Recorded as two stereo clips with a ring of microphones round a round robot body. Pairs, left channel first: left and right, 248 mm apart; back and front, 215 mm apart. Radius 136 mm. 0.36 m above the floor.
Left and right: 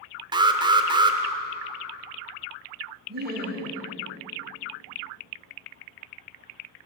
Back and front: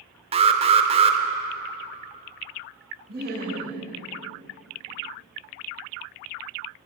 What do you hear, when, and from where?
0.3 s an alarm: 35° right, 0.9 m
3.1 s laughter: 45° right, 2.5 m